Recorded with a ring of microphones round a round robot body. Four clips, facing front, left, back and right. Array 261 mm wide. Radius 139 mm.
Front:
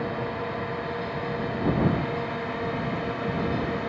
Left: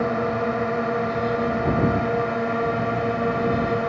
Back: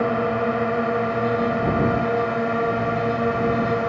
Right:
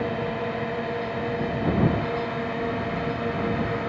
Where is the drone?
155° left; by 3.9 s 150° left.